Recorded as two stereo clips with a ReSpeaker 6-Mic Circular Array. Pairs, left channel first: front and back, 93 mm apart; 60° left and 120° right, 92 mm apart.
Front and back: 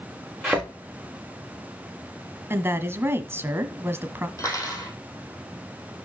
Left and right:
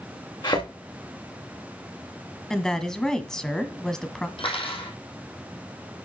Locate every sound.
0.4 s a thud: 95° left, 4.5 m
2.5 s a woman speaking: 140° left, 1.3 m
4.4 s cutlery clinking: 55° left, 4 m